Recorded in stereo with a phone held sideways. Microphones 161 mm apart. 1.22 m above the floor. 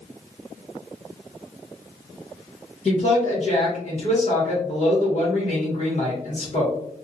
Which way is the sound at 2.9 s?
50° left (ahead or behind).